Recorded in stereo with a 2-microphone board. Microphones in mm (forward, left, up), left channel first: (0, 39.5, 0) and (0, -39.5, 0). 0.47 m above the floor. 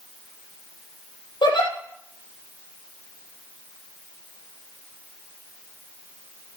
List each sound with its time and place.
1.4 s a giggle: 75° left (ahead or behind), 4.5 m